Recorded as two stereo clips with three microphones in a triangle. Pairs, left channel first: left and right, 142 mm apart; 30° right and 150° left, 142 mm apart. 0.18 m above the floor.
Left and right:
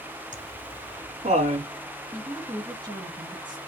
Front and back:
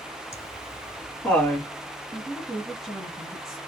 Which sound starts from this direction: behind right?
A woman speaking, at 2.1 s.